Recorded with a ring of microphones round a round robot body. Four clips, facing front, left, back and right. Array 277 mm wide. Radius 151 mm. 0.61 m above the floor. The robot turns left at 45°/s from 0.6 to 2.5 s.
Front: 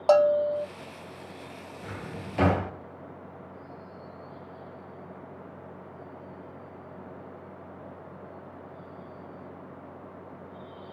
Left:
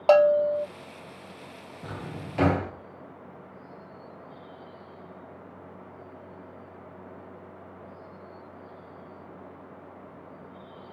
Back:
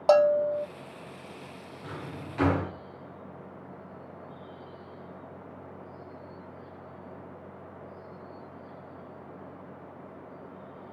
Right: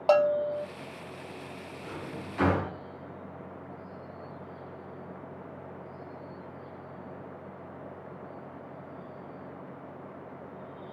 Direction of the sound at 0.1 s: 110° left.